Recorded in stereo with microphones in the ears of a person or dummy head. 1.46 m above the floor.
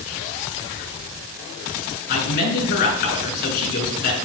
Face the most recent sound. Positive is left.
turn(degrees=55)  # may be behind; listen again after turning